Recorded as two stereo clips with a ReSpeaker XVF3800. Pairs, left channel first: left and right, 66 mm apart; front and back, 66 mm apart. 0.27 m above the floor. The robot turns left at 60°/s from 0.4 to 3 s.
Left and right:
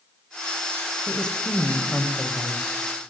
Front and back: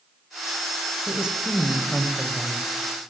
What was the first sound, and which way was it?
A woman speaking, 150° left.